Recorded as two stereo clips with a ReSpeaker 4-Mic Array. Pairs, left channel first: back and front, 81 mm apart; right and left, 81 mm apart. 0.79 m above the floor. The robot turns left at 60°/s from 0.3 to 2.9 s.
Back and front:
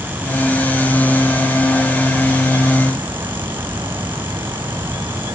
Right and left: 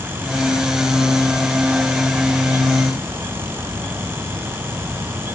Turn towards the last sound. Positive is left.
No sound to turn to.